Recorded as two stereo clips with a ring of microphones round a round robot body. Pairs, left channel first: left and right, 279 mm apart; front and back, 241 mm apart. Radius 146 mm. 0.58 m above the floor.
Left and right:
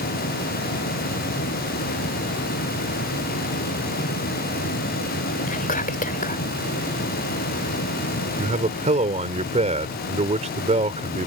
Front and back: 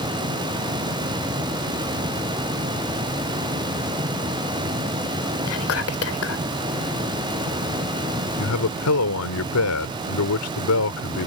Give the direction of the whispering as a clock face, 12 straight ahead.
11 o'clock.